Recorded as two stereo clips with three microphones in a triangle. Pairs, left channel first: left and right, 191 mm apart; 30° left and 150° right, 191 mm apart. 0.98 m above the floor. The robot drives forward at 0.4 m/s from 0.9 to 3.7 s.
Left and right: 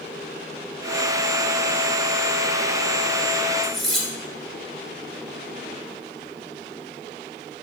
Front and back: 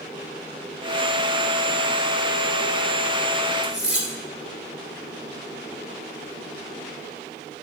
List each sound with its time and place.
3.6 s cutlery clinking: 125° right, 1.9 m